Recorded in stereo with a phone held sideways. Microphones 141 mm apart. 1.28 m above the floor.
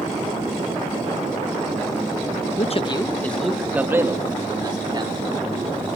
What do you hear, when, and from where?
2.6 s a man speaking: 50° left (ahead or behind), 1.3 m; by 5.3 s 35° right (ahead or behind), 3.5 m